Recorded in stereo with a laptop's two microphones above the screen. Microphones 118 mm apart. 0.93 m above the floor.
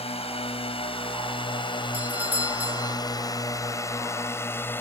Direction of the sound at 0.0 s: 55° left (ahead or behind).